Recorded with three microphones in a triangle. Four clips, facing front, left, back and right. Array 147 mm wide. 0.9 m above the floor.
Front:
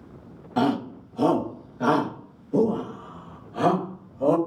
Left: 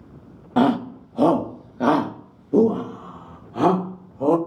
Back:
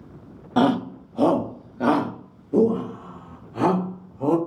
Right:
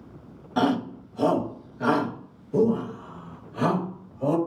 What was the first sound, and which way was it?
A shout, 130° left.